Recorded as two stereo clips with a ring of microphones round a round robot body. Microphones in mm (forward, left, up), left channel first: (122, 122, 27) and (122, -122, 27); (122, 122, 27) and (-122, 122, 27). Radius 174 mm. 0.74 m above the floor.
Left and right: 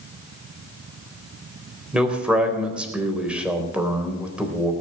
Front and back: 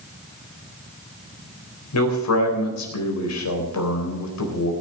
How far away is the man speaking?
About 4 m.